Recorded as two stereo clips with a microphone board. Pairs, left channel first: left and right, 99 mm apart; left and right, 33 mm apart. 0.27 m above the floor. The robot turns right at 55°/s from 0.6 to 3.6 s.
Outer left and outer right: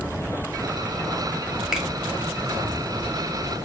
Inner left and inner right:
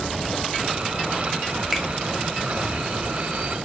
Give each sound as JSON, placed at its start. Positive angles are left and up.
{"t": 1.7, "sound": "a finger snap", "side_deg": -5, "distance_m": 1.0}